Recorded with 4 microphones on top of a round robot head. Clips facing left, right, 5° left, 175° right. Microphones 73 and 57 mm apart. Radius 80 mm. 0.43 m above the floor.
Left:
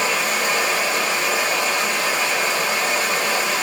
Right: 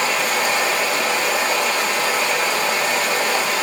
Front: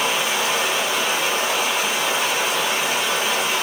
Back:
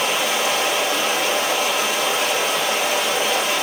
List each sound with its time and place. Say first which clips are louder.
0.0 s running water: right 1 dB, back 1 dB; 145° right, 3 m